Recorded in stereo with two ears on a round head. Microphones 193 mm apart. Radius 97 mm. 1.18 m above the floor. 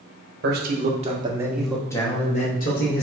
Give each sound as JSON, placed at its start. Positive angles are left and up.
{"t": 0.4, "sound": "a man speaking", "side_deg": -45, "distance_m": 1.0}